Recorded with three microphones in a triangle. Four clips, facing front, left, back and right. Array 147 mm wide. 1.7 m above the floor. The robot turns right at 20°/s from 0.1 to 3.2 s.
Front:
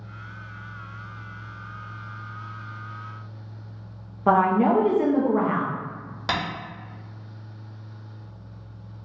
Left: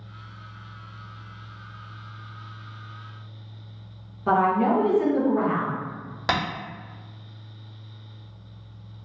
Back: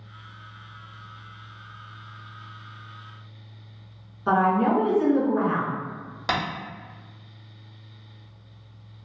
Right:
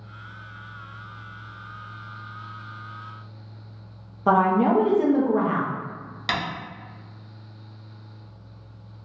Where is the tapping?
90° left, 1.2 m.